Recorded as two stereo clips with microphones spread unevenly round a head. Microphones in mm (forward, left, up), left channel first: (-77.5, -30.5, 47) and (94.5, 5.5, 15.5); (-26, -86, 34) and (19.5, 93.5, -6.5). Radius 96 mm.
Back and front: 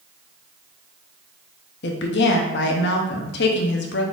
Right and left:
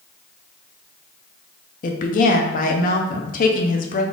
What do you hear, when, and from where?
1.8 s a woman speaking: 145° right, 0.6 m